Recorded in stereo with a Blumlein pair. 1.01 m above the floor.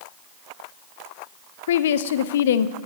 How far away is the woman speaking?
About 0.7 m.